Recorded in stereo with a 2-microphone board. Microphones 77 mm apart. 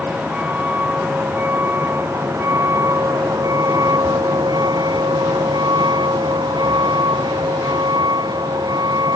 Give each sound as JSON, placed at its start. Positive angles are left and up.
{"t": 0.0, "sound": "a vehicle", "side_deg": -20}